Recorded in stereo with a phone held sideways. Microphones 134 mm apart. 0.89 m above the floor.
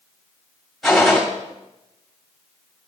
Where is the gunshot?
Centre (ahead or behind), 1.8 m.